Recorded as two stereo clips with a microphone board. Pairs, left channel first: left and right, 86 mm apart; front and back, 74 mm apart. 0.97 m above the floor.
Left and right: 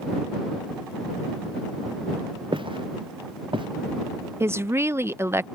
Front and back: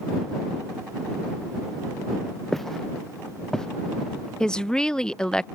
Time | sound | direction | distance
2.5 | footsteps | 85° right | ?
4.4 | a woman speaking | 70° right | ?